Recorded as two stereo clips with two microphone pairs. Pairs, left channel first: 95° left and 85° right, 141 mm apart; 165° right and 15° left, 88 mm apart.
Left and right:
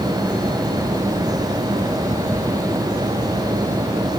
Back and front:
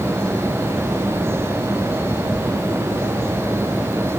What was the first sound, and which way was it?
Only background noise.